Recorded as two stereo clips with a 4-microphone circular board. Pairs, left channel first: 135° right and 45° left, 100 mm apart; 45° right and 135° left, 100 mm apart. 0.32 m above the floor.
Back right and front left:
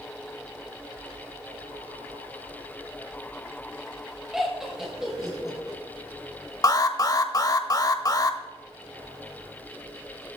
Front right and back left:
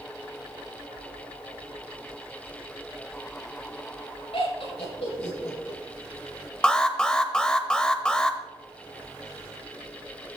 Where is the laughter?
40° right, 5 m.